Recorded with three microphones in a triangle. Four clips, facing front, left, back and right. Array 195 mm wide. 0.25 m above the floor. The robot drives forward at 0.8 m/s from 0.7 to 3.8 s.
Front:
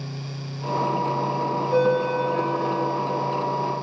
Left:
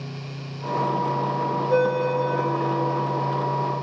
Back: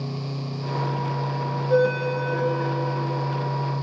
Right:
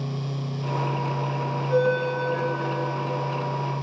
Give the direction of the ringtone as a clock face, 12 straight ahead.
7 o'clock.